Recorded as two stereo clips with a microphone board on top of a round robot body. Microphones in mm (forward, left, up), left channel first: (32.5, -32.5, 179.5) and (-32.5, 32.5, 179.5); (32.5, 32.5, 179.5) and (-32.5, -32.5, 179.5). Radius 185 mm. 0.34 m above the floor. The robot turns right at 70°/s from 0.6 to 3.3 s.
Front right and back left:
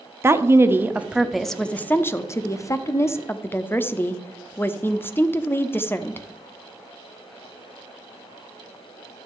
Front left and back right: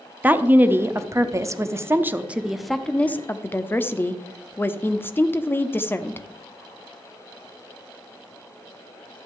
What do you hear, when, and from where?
0.2 s a woman speaking: 170° left, 1.0 m; by 6.2 s straight ahead, 1.0 m